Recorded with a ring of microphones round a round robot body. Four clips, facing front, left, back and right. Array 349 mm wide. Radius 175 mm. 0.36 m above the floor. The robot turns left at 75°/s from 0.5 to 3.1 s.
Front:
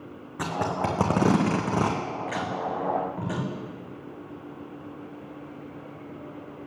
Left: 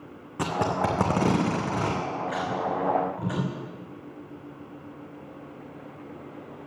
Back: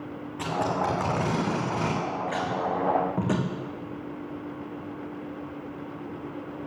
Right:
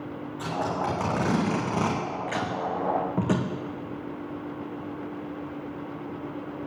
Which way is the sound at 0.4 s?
75° left.